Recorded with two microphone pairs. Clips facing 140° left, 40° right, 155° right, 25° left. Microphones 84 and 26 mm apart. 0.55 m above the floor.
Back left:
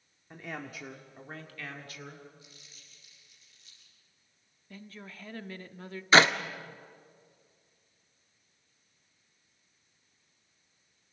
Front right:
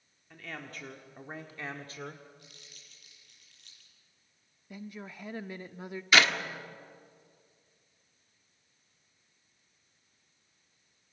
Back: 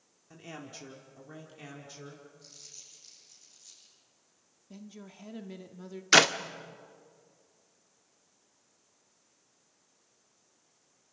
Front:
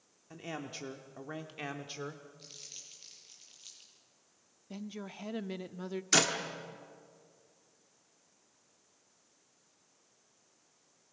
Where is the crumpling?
20° right, 8 m.